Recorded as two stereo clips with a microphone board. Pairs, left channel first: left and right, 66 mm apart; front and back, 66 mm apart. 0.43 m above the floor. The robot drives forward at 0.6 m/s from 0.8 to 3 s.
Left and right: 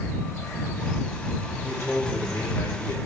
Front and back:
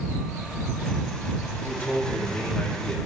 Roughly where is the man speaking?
Ahead left.